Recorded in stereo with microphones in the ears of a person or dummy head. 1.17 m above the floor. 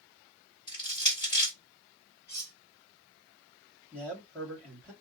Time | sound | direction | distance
0.7 | crushing | 25° left (ahead or behind) | 1.7 m
2.3 | cutlery clinking | 15° left (ahead or behind) | 1.8 m
3.9 | a man speaking | 10° left (ahead or behind) | 2.5 m